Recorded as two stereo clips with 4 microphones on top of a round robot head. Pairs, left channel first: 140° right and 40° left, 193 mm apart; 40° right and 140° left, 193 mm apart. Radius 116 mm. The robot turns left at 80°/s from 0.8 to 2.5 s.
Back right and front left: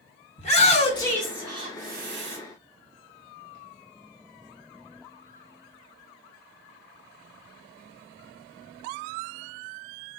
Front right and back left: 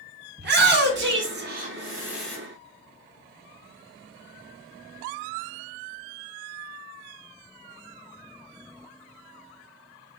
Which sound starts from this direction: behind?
A shout, at 0.4 s.